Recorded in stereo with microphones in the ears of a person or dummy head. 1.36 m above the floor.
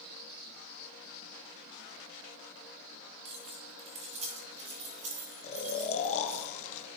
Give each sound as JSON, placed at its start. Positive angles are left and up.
{"t": 3.2, "sound": "keys jangling", "side_deg": -35, "distance_m": 1.3}
{"t": 5.4, "sound": "snoring", "side_deg": 35, "distance_m": 0.9}